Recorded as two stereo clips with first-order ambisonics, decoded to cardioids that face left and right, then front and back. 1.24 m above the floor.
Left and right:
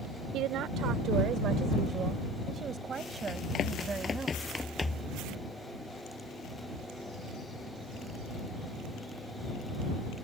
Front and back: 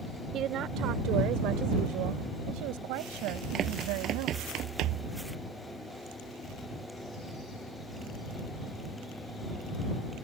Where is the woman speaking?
130° right; by 4.3 s 165° right.